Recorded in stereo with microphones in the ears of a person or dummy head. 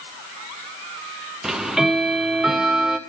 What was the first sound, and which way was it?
Ticking, 5° right (ahead or behind).